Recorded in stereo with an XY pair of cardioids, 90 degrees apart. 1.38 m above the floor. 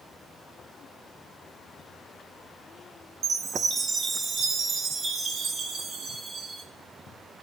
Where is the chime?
55° right, 1.1 m.